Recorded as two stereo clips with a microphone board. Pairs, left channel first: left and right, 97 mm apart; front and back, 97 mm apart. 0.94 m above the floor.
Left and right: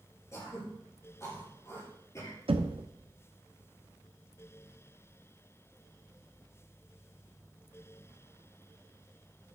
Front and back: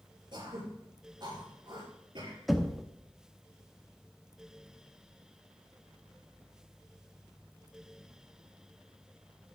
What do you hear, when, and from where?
0.3 s throat clearing: 145° left, 6 m
2.5 s knocking: 90° right, 0.8 m